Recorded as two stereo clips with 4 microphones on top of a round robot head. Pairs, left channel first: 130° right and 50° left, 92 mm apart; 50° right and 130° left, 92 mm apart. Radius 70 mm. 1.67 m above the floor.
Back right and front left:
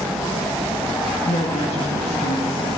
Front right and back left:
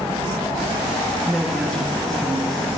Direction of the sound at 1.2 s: 135° right.